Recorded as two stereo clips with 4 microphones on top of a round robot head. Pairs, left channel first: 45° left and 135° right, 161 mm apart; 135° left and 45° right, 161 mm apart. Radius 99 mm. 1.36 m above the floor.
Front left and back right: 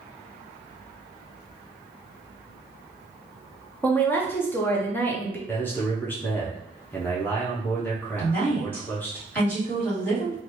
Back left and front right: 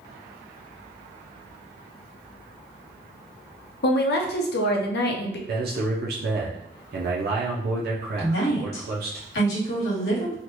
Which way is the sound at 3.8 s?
120° left.